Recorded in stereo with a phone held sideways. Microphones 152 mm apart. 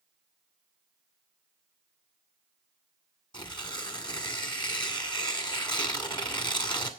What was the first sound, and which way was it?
Tearing paper, 30° left (ahead or behind).